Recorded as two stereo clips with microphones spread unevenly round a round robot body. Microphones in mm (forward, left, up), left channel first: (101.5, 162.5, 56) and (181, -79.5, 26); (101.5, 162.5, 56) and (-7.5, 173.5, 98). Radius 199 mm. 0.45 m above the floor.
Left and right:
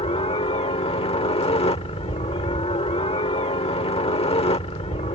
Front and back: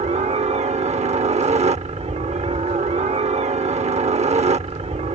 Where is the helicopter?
175° left.